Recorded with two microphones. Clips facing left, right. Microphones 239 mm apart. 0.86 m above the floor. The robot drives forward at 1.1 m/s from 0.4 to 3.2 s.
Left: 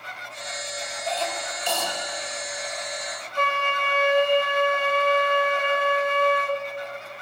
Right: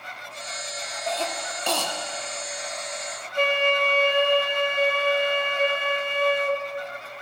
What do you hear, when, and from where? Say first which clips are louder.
1.1 s a cough: even; 45° right (ahead or behind), 1.8 m; by 1.9 s 70° right (ahead or behind), 1.3 m
3.4 s a flute: right 6 dB; 25° right (ahead or behind), 1.1 m